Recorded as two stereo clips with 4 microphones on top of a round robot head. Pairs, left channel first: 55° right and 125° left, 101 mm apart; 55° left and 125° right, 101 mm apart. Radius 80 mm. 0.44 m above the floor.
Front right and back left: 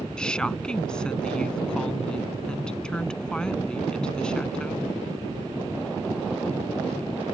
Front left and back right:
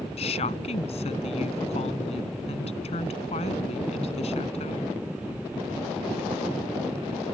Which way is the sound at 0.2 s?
30° left.